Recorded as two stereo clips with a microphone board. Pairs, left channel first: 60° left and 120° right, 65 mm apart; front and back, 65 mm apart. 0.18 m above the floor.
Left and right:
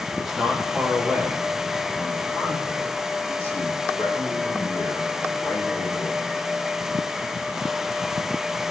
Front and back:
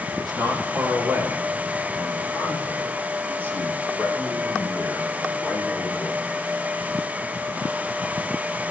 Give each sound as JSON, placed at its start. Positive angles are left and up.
{"t": 0.1, "sound": "a man speaking", "azimuth_deg": 155, "distance_m": 5.5}